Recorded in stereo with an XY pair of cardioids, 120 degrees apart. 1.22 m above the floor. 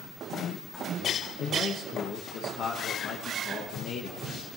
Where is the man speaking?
60° left, 0.9 m.